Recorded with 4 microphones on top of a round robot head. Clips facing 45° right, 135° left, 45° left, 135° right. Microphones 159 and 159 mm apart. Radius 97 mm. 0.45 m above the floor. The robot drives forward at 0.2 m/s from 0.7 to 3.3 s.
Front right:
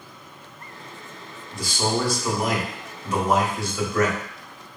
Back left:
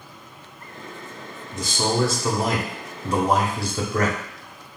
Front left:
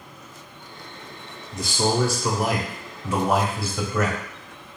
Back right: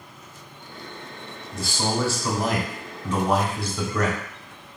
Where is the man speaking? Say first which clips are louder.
Back left 1 dB, front left 3 dB; 90° left, 1.2 m; by 4.2 s 125° left, 1.2 m.